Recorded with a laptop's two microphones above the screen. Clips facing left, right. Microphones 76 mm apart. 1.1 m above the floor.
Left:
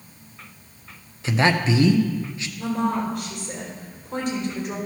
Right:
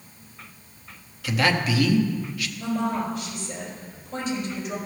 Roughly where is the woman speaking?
Left.